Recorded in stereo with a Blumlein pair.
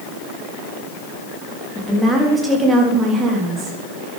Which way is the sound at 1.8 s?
5° right.